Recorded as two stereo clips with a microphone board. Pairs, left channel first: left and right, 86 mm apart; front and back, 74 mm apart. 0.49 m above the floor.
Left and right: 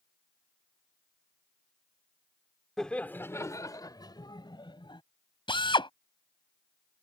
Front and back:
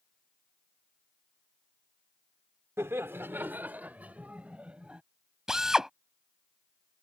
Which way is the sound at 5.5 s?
100° left.